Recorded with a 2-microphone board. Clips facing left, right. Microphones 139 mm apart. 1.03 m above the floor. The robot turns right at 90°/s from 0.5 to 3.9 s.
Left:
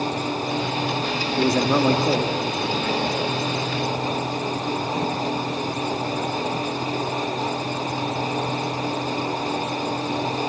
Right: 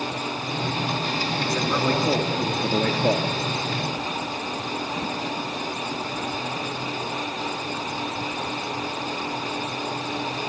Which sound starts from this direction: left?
A man speaking, at 1.4 s.